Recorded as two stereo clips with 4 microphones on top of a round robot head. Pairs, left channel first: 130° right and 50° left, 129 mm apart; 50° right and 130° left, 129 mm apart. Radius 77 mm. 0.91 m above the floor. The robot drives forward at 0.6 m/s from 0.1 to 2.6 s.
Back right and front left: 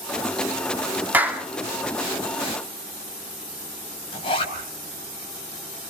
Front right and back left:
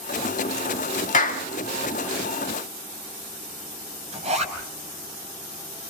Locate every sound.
1.1 s a clap: 30° right, 2.0 m
4.1 s a zipper: 175° left, 5.5 m